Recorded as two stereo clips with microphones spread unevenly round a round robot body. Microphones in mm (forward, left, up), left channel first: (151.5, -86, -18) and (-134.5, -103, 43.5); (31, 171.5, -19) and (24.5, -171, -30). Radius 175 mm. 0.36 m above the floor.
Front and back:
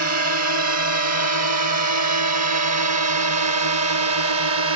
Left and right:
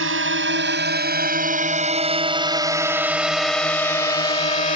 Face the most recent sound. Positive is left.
turn(degrees=150)